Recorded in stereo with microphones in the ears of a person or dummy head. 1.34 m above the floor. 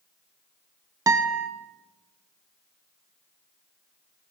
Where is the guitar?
10° right (ahead or behind), 0.6 m.